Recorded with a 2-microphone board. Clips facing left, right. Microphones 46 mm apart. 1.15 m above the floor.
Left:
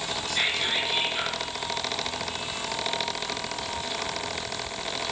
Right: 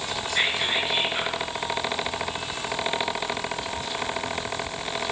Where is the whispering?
30° right (ahead or behind), 6.5 m.